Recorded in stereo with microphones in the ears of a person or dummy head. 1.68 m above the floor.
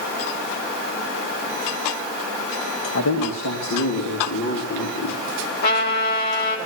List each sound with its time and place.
3.0 s a man speaking: 80° left, 4 m; by 5.2 s 90° left, 5.5 m
5.6 s a trumpet: 55° left (ahead or behind), 5 m